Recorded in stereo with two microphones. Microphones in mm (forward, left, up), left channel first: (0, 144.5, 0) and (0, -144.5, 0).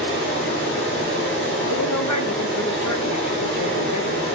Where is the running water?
45° left (ahead or behind), 3.5 m.